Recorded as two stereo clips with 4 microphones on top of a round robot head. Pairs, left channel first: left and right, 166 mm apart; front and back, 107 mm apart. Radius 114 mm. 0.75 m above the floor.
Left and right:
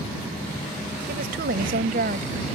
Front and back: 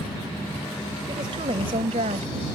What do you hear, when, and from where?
1.1 s a woman speaking: 120° right; by 2.6 s 145° right